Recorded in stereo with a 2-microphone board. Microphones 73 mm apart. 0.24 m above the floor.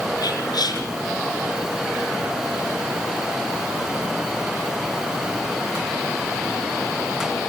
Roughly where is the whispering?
Left.